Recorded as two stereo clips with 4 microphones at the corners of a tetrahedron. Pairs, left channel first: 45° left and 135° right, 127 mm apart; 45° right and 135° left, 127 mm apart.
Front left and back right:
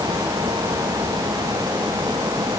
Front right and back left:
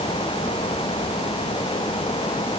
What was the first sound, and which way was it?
Only background noise.